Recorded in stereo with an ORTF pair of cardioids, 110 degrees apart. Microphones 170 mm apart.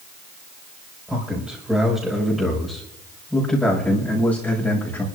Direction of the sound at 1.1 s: 5° right.